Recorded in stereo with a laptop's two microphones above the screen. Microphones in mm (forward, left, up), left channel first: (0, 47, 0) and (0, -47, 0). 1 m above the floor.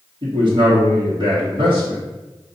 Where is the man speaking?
70° right (ahead or behind), 2 m.